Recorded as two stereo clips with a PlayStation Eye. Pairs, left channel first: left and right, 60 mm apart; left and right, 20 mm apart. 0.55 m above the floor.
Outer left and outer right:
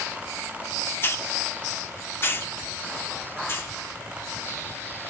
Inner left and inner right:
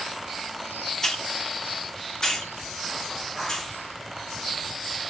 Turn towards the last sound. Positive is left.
turn(degrees=35)  # may be behind; listen again after turning